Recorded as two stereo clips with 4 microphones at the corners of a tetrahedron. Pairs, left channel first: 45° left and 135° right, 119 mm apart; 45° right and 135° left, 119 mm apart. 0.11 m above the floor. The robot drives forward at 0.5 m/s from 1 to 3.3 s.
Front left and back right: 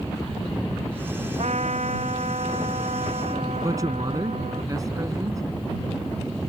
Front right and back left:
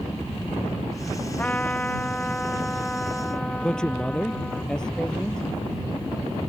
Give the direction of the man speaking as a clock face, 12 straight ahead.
4 o'clock.